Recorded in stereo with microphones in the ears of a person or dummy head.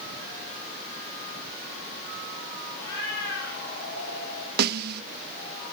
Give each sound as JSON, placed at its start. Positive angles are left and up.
{"t": 2.8, "sound": "a cat meowing", "side_deg": 55, "distance_m": 5.0}
{"t": 4.6, "sound": "a snare drum", "side_deg": -60, "distance_m": 1.0}